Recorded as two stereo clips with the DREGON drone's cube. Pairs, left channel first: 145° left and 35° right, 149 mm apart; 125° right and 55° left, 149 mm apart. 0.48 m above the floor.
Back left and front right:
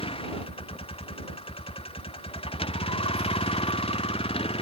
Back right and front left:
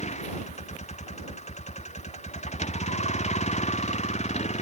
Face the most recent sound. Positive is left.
turn(degrees=-165)